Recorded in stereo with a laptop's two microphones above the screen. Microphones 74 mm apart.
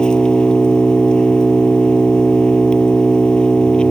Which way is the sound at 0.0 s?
10° left (ahead or behind).